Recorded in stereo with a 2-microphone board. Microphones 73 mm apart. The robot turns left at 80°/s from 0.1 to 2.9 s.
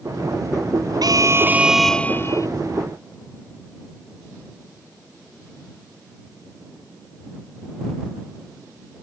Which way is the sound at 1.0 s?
115° right.